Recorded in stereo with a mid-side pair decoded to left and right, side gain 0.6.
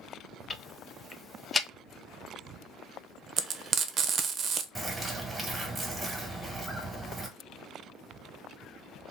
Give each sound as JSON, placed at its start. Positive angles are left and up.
{"t": 0.5, "sound": "ticking", "azimuth_deg": 20, "distance_m": 0.6}
{"t": 3.4, "sound": "frying", "azimuth_deg": -40, "distance_m": 0.7}
{"t": 4.8, "sound": "a bird", "azimuth_deg": -15, "distance_m": 1.5}